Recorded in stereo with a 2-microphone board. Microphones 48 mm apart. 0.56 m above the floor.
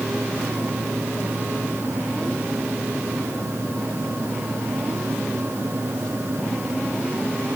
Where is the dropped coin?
I don't hear a dropped coin.